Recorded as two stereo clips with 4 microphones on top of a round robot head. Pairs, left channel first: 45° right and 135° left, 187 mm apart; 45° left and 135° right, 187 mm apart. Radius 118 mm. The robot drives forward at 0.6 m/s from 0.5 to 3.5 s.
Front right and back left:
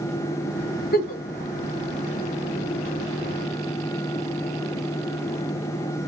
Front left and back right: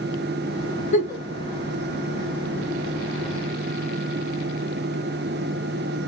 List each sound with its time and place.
0.9 s a giggle: 5° right, 2.5 m